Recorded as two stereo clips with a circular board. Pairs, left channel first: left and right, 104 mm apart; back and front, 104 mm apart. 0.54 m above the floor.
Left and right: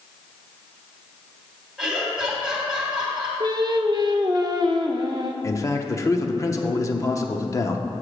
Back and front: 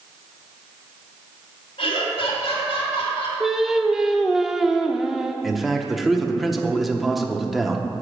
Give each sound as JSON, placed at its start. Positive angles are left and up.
{"t": 1.8, "sound": "laughter", "azimuth_deg": -175, "distance_m": 3.0}
{"t": 3.4, "sound": "singing", "azimuth_deg": -85, "distance_m": 0.6}
{"t": 5.4, "sound": "a man speaking", "azimuth_deg": 90, "distance_m": 0.7}